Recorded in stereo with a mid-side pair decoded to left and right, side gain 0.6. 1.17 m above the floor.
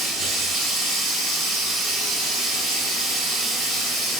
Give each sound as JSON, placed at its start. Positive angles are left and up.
{"t": 0.0, "sound": "running water", "azimuth_deg": -65, "distance_m": 1.4}